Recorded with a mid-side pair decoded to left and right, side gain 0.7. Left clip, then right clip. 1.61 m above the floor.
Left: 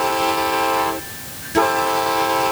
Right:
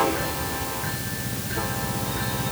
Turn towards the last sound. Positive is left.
No sound to turn to.